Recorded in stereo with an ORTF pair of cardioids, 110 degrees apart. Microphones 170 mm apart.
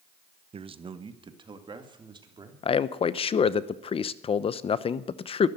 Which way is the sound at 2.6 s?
35° left.